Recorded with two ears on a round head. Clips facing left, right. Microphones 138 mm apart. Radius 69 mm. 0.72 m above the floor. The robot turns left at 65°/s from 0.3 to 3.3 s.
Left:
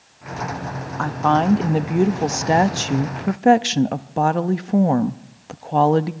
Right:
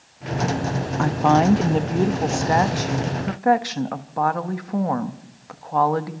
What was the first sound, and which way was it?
A woman speaking, 140° right.